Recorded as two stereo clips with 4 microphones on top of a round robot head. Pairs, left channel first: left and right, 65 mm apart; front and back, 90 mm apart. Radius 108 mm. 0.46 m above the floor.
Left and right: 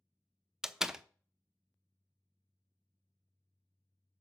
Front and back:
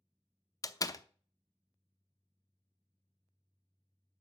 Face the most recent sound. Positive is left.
turn(degrees=-10)